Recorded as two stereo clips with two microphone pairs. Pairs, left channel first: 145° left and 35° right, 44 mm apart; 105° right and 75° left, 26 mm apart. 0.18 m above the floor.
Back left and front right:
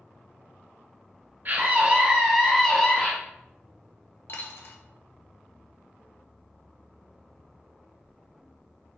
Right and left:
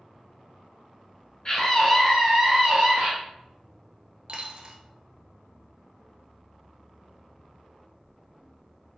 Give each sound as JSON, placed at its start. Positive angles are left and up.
{"t": 1.4, "sound": "a scream", "azimuth_deg": -45, "distance_m": 1.6}
{"t": 4.3, "sound": "a dropped coin", "azimuth_deg": 125, "distance_m": 0.8}